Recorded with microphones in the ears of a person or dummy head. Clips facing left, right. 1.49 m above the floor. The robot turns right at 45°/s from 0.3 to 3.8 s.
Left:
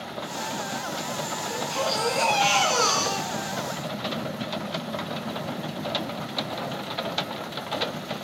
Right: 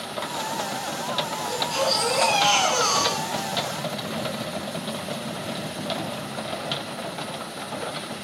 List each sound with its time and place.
1.4 s a baby crying: 20° right, 9 m; by 3.9 s 85° left, 9 m